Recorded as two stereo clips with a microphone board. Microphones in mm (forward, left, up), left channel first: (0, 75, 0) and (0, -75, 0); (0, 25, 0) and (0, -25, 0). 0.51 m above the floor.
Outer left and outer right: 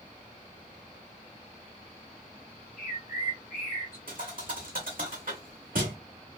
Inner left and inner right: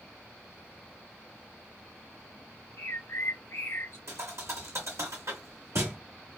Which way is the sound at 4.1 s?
70° right (ahead or behind).